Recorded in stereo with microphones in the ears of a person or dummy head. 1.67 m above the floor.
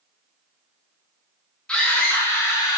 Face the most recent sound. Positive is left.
turn(degrees=25)  # may be behind; listen again after turning